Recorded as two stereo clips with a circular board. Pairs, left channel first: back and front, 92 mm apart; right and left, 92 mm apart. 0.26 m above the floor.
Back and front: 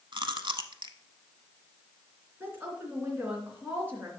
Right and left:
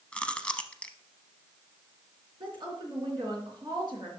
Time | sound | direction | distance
0.1 | chewing | 15° right | 0.7 m
2.4 | a woman speaking | 65° left | 3 m